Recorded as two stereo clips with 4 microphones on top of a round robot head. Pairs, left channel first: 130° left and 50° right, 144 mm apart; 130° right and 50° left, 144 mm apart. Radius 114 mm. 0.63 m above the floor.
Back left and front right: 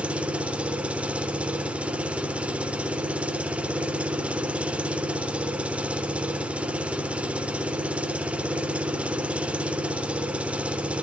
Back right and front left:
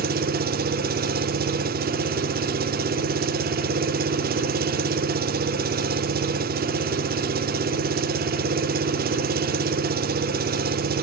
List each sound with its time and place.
0.0 s an engine running: 35° left, 0.9 m